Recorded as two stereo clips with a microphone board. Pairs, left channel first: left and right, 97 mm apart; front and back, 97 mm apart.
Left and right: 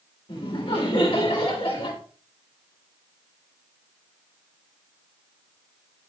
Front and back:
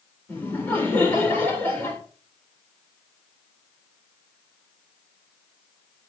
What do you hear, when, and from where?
0.3 s laughter: 70° left, 3.5 m